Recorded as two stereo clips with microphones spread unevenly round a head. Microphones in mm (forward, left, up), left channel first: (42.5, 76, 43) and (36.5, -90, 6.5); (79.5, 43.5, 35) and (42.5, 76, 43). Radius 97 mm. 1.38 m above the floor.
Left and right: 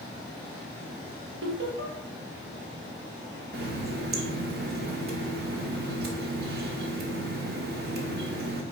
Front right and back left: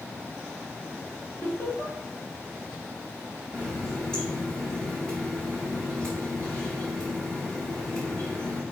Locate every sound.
1.4 s laughter: 105° right, 1.9 m
3.5 s a running tap: 130° right, 0.8 m